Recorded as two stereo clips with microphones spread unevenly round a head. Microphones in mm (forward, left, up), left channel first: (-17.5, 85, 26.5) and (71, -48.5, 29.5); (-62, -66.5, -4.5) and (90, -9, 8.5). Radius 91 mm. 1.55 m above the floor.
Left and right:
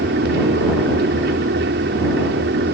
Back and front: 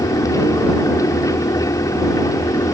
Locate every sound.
0.0 s a fan: 90° right